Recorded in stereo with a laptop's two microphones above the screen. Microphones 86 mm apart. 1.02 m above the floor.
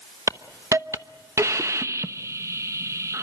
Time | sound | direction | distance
0.3 | a hiss | 35° right (ahead or behind) | 0.9 m